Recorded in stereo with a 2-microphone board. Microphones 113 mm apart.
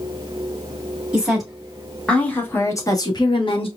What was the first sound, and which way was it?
A woman speaking, 10° right (ahead or behind).